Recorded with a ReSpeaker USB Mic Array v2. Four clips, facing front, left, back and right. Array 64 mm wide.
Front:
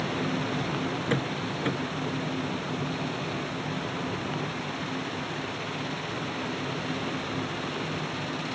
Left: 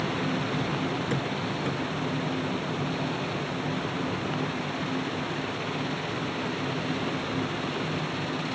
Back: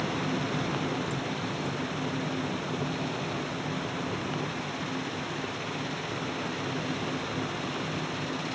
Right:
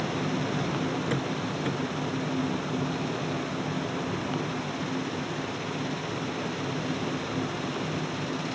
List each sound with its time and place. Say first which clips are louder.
1.1 s a door slam: even, front 3 dB; 5° right